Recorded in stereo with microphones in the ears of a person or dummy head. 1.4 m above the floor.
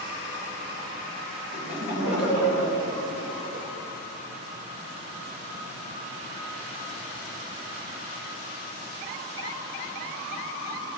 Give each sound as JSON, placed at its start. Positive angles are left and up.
{"t": 1.5, "sound": "laughter", "side_deg": 65, "distance_m": 1.4}